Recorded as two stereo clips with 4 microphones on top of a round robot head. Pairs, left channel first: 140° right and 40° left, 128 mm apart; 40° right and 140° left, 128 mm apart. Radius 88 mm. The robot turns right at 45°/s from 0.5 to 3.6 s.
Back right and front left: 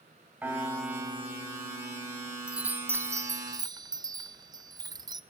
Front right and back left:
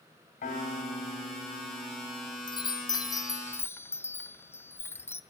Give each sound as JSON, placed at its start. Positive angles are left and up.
{"t": 0.4, "sound": "a piano", "azimuth_deg": -35, "distance_m": 3.0}
{"t": 2.5, "sound": "a chime", "azimuth_deg": -35, "distance_m": 0.7}